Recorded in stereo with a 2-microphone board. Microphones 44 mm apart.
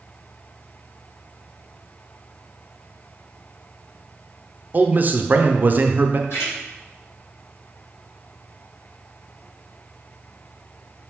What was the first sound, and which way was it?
A man speaking, 40° right (ahead or behind).